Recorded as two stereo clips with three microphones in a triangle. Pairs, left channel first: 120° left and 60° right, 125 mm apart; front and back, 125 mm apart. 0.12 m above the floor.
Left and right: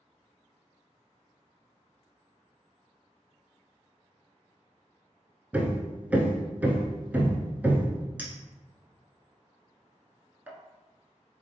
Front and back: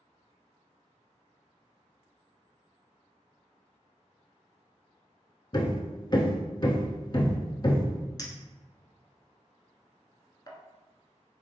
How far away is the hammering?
About 0.5 m.